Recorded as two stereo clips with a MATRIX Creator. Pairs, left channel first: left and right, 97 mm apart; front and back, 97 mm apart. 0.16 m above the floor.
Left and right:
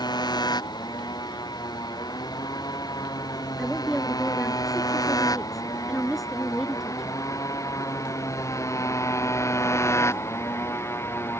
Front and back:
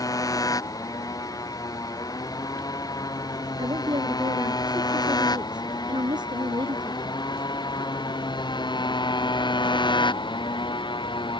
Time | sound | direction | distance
0.0 | a motorcycle | 50° left | ?
3.6 | a woman speaking | straight behind | ?